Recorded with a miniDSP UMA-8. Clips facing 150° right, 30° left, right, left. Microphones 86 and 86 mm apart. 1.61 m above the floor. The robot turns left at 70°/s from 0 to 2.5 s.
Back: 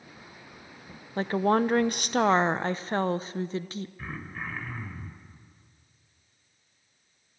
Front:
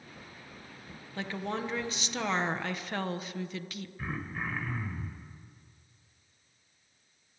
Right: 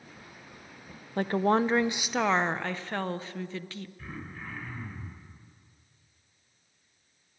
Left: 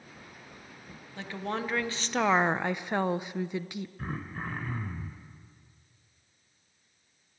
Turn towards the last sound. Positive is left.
turn(degrees=115)